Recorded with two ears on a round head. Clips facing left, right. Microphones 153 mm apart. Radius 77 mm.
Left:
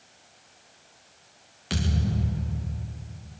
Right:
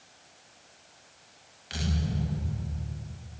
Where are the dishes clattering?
No dishes clattering in this recording.